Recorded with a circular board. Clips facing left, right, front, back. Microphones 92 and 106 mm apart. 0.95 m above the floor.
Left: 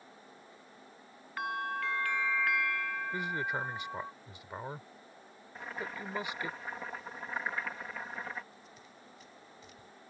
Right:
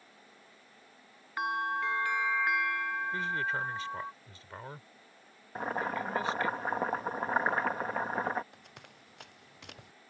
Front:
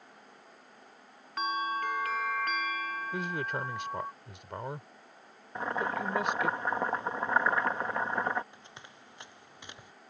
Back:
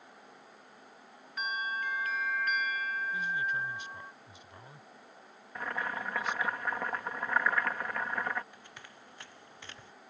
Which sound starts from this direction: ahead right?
Boiling, at 5.5 s.